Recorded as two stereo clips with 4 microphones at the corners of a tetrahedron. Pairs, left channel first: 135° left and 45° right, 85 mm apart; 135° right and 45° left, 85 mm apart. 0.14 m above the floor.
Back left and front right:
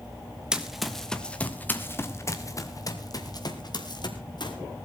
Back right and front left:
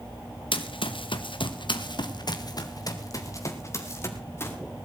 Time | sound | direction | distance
0.5 | running footsteps | 125° right | 1.9 m